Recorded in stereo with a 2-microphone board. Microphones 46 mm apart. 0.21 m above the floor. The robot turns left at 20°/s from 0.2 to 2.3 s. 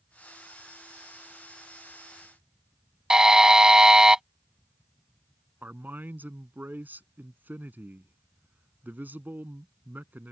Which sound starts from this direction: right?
A man speaking, at 5.6 s.